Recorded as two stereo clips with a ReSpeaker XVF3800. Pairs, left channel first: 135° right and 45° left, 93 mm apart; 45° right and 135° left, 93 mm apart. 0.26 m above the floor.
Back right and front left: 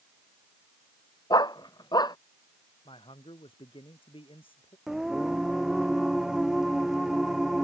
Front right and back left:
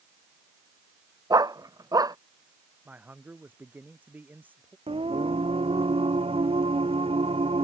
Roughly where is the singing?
Behind left.